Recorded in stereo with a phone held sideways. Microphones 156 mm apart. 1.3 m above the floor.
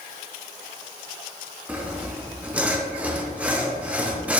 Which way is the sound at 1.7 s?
10° right (ahead or behind).